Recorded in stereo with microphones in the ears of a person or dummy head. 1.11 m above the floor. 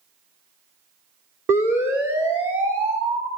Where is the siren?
10° right (ahead or behind), 5 m; by 3.3 s 5° right (ahead or behind), 7 m.